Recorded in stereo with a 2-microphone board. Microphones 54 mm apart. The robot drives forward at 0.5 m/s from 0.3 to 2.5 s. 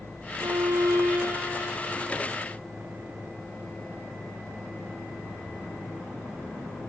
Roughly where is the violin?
Right.